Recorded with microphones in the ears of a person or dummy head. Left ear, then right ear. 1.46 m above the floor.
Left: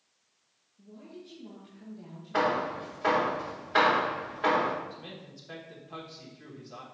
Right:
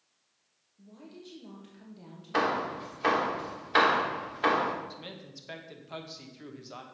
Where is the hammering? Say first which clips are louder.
Left 1 dB; 35° right (ahead or behind), 1.4 m.